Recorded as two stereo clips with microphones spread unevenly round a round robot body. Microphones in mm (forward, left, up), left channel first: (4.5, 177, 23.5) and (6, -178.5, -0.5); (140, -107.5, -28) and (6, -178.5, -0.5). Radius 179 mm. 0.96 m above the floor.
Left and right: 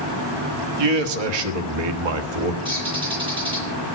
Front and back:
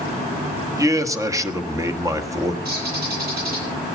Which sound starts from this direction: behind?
A bird, at 2.6 s.